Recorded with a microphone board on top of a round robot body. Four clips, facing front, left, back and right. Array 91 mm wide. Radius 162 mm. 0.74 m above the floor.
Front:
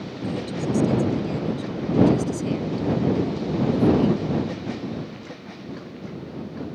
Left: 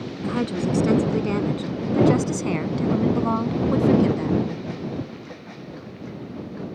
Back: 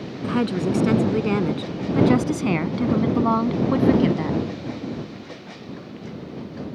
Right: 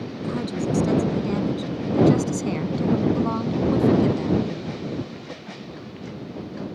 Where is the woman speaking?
160° left; by 4.4 s 170° left.